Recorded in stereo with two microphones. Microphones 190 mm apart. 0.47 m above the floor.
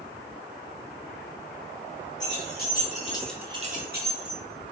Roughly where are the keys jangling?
Left.